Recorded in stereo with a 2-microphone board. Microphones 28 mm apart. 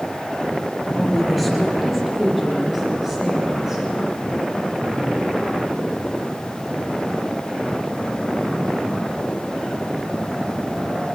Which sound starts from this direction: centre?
A woman speaking, at 1.0 s.